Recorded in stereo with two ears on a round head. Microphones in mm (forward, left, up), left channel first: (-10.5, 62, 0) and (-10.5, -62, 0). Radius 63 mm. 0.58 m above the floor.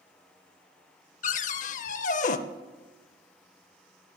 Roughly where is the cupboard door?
Left.